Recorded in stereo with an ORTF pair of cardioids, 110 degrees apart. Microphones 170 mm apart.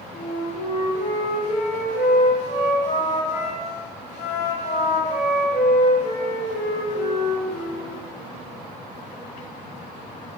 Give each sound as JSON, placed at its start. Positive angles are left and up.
{"t": 0.1, "sound": "a flute", "azimuth_deg": 45, "distance_m": 1.0}